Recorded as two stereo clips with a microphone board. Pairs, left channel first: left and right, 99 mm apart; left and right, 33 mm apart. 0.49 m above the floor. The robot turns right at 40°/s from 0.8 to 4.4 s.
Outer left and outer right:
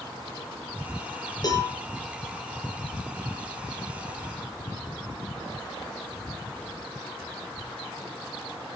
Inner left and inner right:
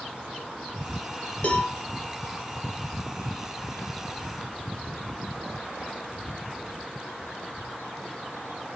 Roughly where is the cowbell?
Left.